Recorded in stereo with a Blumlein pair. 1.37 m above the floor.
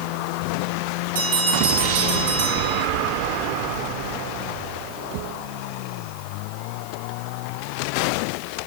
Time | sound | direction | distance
1.1 | a bell | 60° right | 8 m